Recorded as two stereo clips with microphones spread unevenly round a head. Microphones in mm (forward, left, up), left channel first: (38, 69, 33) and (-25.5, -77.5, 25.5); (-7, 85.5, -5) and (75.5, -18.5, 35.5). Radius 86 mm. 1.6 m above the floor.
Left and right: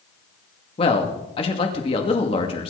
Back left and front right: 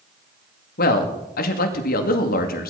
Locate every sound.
0.8 s a man speaking: 125° left, 2.5 m